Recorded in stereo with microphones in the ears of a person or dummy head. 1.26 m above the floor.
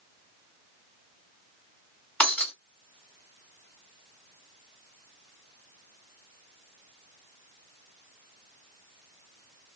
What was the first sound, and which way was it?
Breaking glass, 10° left (ahead or behind).